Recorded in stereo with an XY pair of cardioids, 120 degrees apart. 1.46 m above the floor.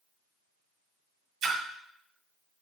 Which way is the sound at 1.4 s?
65° right.